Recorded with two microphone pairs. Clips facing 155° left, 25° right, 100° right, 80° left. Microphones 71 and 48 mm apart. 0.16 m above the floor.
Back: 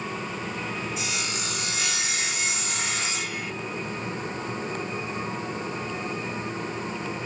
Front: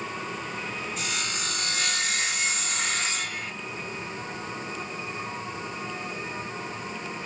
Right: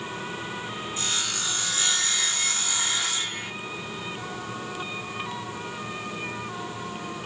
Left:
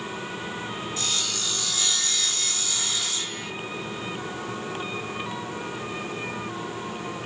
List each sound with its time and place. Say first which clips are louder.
1.0 s sawing: back 1 dB, right 2 dB; 125° right, 1.2 m